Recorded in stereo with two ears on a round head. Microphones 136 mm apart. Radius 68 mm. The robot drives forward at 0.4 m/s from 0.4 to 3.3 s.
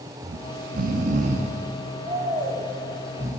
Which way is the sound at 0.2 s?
65° right (ahead or behind).